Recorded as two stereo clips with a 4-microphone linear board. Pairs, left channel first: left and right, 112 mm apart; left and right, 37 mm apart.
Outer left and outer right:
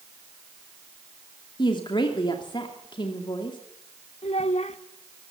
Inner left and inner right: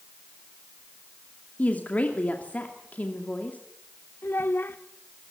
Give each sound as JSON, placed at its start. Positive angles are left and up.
{"t": 1.6, "sound": "a woman speaking", "side_deg": 45, "distance_m": 2.5}
{"t": 4.2, "sound": "a child speaking", "side_deg": 75, "distance_m": 1.3}